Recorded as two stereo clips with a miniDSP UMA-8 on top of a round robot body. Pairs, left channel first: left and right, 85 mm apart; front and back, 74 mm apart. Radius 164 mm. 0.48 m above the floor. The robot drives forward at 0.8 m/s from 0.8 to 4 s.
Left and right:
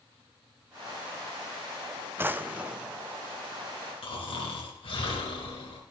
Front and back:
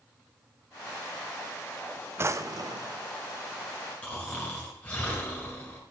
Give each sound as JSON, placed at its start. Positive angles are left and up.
{"t": 2.2, "sound": "a drawer", "azimuth_deg": -140, "distance_m": 0.6}
{"t": 4.0, "sound": "snoring", "azimuth_deg": 70, "distance_m": 2.0}